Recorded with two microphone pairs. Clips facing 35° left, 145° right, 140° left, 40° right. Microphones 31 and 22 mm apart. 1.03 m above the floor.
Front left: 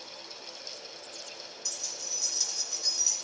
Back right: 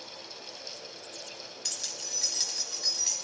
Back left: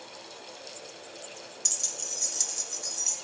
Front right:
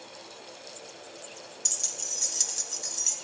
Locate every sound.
1.6 s keys jangling: 130° right, 0.5 m; by 3.1 s 110° right, 1.4 m